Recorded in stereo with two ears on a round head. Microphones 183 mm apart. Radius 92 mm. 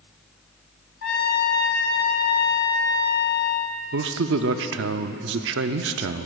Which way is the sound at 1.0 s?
50° left (ahead or behind).